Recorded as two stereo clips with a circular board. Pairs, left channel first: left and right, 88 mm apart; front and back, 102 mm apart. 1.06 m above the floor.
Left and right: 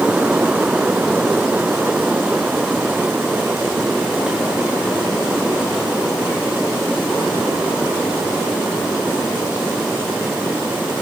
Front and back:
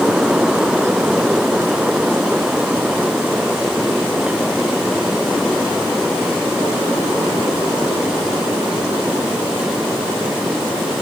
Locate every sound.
Only background noise.